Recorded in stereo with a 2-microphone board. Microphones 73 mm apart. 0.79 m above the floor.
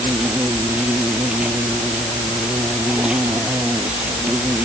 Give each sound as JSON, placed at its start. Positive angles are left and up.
{"t": 0.0, "sound": "an insect", "side_deg": -15}